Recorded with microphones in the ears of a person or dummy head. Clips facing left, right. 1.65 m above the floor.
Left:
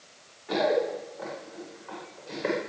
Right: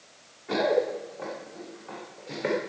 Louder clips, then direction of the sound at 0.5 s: Right 1 dB; 30° right (ahead or behind).